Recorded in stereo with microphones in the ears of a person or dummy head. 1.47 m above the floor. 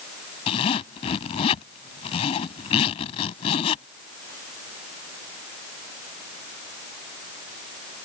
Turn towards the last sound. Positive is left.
turn(degrees=35)  # may be behind; listen again after turning